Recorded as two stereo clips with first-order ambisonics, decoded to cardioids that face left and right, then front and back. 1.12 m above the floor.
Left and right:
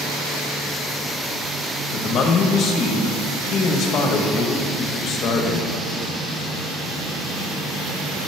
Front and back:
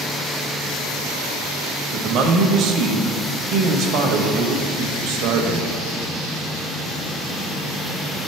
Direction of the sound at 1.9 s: 145° left.